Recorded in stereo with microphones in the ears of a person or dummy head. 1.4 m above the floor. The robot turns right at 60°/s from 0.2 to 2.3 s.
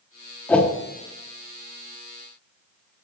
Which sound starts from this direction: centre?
A whoosh, at 0.5 s.